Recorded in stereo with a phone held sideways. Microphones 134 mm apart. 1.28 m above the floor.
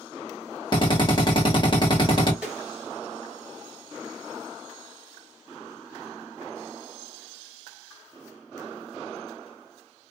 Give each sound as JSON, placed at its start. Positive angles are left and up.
{"t": 0.7, "sound": "a drill", "side_deg": 35, "distance_m": 1.4}
{"t": 2.4, "sound": "a snare drum", "side_deg": -5, "distance_m": 2.0}